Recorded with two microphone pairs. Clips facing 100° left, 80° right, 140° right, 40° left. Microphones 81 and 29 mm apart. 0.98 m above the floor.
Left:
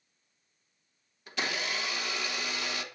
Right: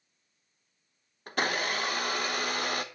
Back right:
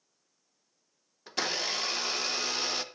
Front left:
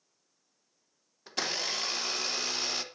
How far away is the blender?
About 1.0 m.